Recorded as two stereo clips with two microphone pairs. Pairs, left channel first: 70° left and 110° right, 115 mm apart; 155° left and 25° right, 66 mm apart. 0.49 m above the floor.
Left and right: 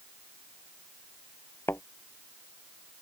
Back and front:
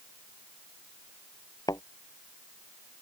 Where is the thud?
140° left.